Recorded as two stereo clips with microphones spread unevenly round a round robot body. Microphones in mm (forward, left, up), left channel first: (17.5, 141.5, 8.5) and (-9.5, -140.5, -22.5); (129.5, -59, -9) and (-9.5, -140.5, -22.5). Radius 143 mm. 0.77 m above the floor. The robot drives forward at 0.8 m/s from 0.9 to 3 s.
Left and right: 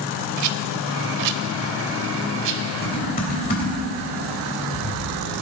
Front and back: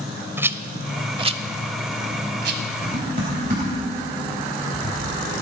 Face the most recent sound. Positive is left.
turn(degrees=145)